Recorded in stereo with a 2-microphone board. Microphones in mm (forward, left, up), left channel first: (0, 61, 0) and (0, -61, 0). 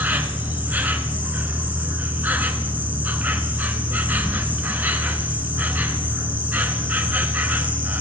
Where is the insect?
15° right (ahead or behind), 0.8 m.